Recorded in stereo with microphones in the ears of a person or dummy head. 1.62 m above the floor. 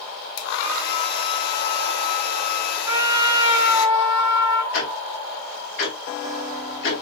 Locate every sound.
0.4 s a hair dryer: 55° left (ahead or behind), 0.9 m
2.9 s a trumpet: 25° right (ahead or behind), 1.5 m
4.7 s ticking: 70° left (ahead or behind), 2.5 m